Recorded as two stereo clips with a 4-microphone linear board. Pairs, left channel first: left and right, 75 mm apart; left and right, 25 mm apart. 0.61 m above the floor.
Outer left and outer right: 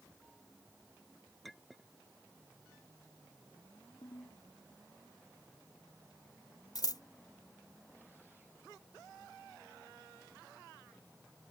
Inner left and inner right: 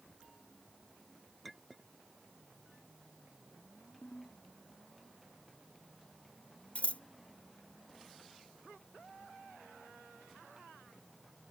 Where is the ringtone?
70° left (ahead or behind).